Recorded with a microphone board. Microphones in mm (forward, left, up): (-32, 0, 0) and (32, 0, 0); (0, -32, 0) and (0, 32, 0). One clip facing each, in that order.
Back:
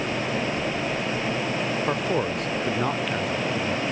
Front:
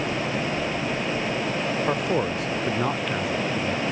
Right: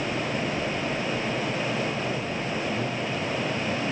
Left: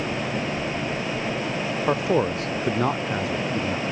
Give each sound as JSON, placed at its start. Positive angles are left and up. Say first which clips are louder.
{"t": 1.9, "sound": "a man speaking", "louder": "front 1 dB, left 8 dB", "azimuth_deg": 90}